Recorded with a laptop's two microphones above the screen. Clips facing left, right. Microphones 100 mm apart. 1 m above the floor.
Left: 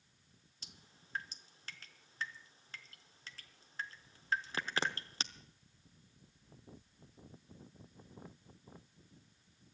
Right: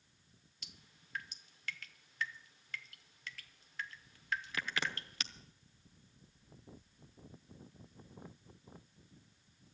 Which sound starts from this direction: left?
Dripping, at 0.6 s.